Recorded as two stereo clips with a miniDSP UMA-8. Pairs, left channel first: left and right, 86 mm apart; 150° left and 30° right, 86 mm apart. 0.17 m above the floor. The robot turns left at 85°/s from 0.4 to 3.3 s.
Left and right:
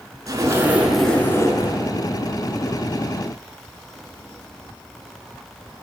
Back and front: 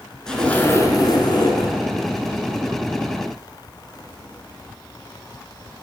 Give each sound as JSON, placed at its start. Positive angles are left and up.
{"t": 0.3, "sound": "a zipper", "azimuth_deg": -130, "distance_m": 0.9}